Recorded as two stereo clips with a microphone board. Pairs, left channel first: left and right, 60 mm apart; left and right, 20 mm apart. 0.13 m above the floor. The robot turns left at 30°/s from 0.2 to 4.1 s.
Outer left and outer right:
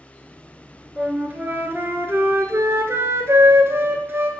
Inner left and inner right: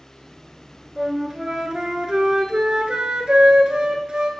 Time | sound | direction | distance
1.0 | a flute | 30° right | 0.8 m